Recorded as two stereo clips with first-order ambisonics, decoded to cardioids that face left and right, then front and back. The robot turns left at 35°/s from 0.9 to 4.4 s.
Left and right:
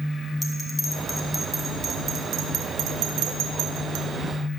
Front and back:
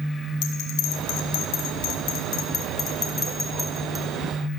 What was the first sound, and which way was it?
A bell, 15° left.